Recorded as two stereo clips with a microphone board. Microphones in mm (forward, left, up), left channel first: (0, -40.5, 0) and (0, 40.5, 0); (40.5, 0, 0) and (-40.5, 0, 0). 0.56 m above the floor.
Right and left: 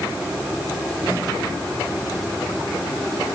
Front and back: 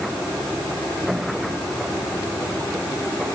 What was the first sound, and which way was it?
Only background noise.